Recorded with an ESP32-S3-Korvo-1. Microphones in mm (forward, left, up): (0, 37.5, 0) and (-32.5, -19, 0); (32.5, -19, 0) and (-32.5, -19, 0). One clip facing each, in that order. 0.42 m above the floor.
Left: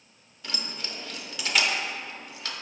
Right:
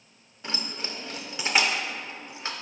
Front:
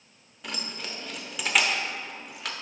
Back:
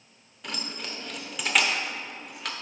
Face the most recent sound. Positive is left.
turn(degrees=-90)